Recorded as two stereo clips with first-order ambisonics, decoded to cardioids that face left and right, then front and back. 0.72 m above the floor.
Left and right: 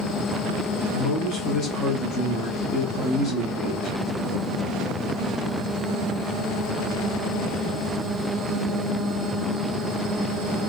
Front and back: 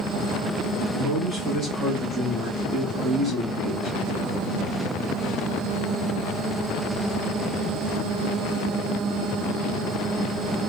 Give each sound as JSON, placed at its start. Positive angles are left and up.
{"t": 0.9, "sound": "a man speaking", "azimuth_deg": 110, "distance_m": 1.0}